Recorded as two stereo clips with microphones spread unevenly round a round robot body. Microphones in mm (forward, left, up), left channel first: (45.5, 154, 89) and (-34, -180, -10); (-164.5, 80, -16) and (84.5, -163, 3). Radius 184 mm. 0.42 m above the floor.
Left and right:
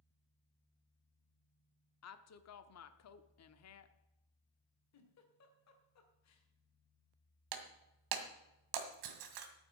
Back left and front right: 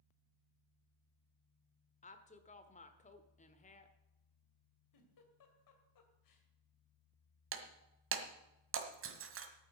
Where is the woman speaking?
100° left, 1.1 m.